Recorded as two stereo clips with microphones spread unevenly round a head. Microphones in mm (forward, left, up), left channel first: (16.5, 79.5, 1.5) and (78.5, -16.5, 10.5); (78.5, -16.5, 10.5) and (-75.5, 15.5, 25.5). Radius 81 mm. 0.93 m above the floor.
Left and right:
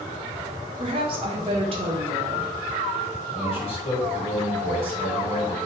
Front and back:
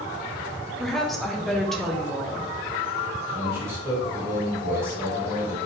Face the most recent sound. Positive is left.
turn(degrees=95)